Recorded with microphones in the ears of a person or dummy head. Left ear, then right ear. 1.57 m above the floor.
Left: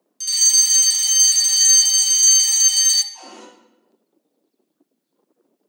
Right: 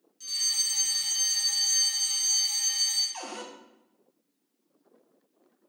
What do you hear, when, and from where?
0.2 s a fire alarm: 45° left (ahead or behind), 0.7 m
3.1 s a cupboard door: 35° right (ahead or behind), 1.4 m